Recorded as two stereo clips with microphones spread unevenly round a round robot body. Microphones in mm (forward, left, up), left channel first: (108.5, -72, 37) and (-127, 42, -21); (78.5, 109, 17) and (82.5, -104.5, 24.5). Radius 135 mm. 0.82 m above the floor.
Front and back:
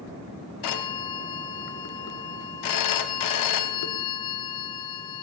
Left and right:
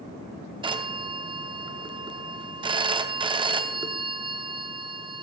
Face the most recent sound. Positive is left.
turn(degrees=-20)